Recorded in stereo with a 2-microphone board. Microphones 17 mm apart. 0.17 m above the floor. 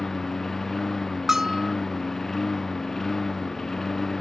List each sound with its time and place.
0.0 s a lawn mower: 15° left (ahead or behind)
1.3 s a bell: 30° right (ahead or behind)